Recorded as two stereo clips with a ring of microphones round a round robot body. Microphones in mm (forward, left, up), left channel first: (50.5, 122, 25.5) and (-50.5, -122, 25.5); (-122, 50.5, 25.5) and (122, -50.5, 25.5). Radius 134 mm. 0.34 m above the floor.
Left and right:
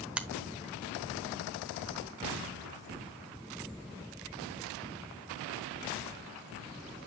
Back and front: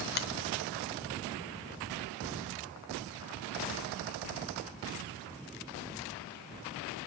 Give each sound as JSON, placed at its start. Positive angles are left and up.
{"t": 0.2, "sound": "a finger snap", "azimuth_deg": 165, "distance_m": 0.8}